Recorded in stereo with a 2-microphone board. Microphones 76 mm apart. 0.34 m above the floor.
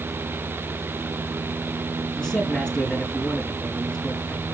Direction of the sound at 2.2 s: 10° left (ahead or behind).